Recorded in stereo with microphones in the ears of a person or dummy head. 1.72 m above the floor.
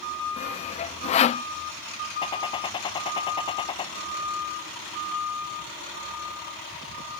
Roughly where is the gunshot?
Centre.